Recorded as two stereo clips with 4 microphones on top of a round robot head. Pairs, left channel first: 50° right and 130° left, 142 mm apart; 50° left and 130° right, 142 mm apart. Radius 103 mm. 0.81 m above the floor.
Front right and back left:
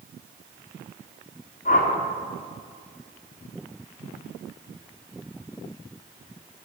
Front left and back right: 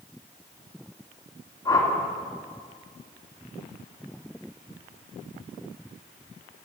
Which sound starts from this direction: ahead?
A whoosh, at 1.6 s.